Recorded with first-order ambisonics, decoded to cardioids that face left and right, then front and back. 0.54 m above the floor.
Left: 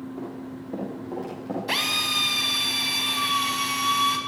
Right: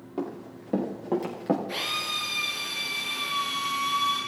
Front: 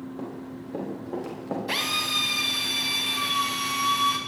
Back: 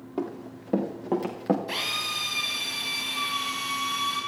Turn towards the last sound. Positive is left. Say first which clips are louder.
# left 5 dB, front 3 dB
turn(degrees=75)